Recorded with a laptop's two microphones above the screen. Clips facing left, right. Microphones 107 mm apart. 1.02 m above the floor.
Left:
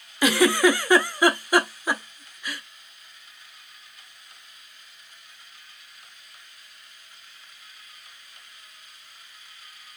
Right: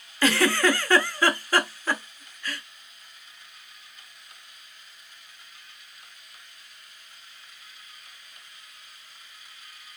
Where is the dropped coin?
No dropped coin in this recording.